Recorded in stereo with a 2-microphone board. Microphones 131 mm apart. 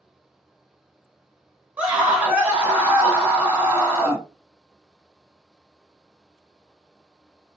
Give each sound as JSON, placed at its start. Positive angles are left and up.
{"t": 1.8, "sound": "a scream", "side_deg": -10, "distance_m": 1.2}